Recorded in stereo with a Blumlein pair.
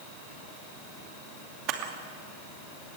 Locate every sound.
1.7 s a camera shutter: 35° right, 2.5 m